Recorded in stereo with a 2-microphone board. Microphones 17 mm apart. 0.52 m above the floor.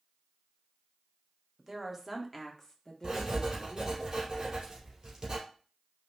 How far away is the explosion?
No explosion in this recording.